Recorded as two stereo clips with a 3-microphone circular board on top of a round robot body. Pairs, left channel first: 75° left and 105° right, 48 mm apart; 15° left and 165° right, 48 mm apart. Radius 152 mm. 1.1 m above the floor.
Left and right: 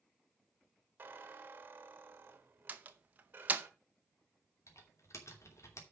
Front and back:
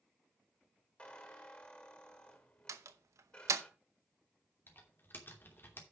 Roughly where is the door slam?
Behind.